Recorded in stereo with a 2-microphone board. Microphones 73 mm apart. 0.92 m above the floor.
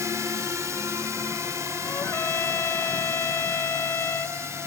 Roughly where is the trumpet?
Left.